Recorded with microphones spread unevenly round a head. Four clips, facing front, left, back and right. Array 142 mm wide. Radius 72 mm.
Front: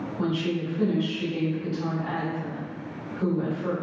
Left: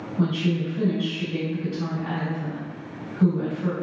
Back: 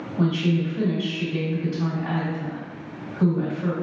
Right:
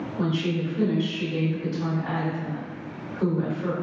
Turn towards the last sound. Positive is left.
turn(degrees=165)